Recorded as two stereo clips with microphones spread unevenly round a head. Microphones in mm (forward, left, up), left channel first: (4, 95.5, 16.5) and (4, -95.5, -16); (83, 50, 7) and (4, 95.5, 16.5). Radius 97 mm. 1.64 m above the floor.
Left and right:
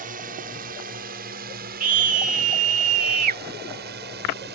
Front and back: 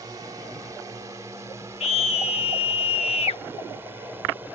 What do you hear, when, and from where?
0.0 s a drone: 140° right; by 4.5 s 130° right
1.8 s a scream: 35° right